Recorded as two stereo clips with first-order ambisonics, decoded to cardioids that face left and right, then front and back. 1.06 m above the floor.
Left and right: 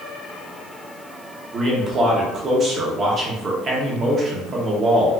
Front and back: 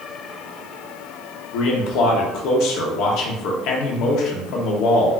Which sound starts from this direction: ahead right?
A man speaking, at 1.5 s.